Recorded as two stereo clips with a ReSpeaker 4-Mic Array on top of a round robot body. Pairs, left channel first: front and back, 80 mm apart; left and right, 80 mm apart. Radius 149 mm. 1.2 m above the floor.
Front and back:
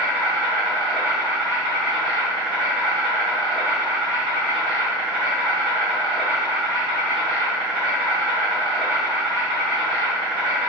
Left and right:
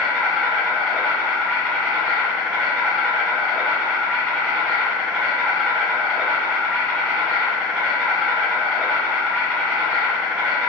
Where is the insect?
170° left, 0.8 m.